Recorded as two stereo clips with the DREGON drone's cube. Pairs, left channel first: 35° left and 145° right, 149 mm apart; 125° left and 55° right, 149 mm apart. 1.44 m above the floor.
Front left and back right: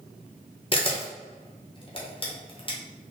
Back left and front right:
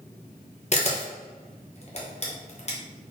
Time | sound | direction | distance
0.7 | a camera shutter | 85° left | 0.9 m